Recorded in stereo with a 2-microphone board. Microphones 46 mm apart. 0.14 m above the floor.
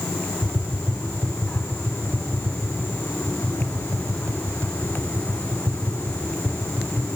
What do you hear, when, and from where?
0.4 s tapping: 60° right (ahead or behind), 5.5 m